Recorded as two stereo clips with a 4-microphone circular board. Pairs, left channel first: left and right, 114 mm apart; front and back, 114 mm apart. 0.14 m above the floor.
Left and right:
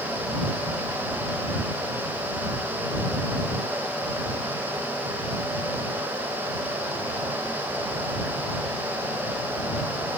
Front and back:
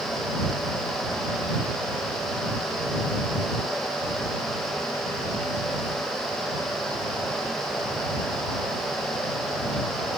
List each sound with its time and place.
Only background noise.